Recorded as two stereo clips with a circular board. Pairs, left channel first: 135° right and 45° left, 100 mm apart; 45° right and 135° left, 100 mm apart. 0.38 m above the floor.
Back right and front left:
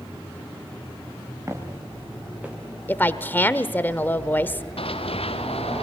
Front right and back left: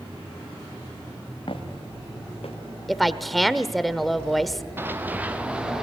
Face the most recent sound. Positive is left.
turn(degrees=-140)